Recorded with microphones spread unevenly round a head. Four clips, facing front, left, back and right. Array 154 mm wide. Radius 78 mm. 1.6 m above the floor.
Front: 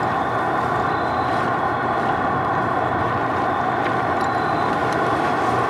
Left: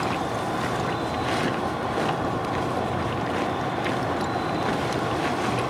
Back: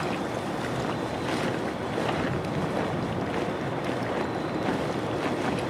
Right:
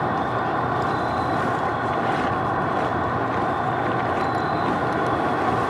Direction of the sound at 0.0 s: 30° right.